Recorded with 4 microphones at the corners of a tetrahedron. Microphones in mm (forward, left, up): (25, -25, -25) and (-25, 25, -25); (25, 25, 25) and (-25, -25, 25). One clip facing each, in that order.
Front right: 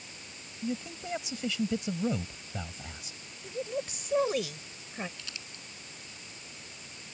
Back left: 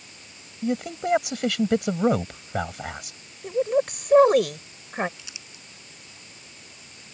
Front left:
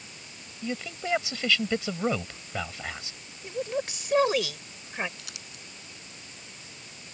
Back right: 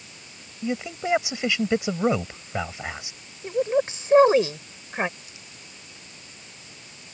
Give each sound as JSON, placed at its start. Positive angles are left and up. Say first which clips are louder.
{"t": 0.6, "sound": "a man speaking", "louder": "back left 10 dB, back right 5 dB", "azimuth_deg": 155}
{"t": 3.4, "sound": "a woman speaking", "louder": "back left 13 dB, back right 8 dB", "azimuth_deg": 165}
{"t": 5.2, "sound": "crumpling", "louder": "even, front left 1 dB", "azimuth_deg": 60}